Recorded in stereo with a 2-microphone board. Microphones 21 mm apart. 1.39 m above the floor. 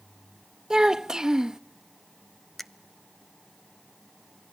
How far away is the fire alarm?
No fire alarm in this recording.